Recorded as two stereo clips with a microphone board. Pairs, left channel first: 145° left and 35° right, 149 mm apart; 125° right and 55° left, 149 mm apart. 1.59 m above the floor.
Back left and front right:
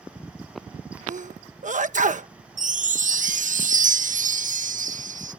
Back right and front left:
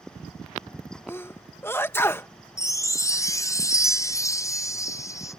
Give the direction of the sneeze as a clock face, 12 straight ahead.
2 o'clock.